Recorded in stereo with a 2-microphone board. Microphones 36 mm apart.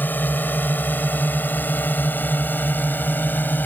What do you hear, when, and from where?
0.0 s a drone: 60° left (ahead or behind)